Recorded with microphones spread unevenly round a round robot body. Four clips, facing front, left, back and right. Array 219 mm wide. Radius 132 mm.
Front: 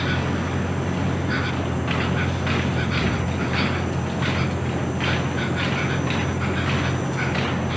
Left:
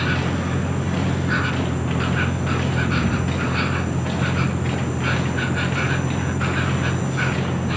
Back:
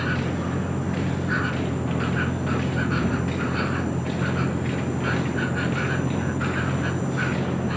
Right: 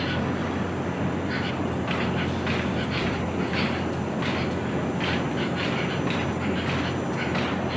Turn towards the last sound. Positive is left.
turn(degrees=125)